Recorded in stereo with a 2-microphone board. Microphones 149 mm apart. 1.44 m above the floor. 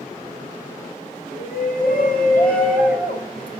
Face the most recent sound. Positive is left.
turn(degrees=75)  # may be behind; listen again after turning